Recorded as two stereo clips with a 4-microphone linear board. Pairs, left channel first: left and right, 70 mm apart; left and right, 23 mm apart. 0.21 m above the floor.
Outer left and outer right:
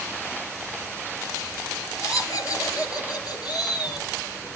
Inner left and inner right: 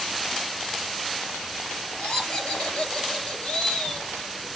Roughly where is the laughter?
Left.